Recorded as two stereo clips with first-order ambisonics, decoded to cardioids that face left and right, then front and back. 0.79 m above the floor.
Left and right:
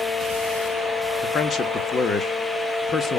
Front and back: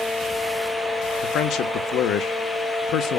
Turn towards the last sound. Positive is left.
turn(degrees=30)